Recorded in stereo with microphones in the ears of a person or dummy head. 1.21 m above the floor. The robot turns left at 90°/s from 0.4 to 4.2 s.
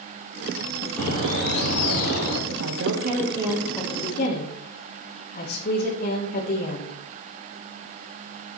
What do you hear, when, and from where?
1.0 s a bird: 170° left, 7.5 m; by 2.4 s 45° left, 7.5 m
2.5 s a woman speaking: 65° right, 3 m; by 6.9 s 140° left, 3 m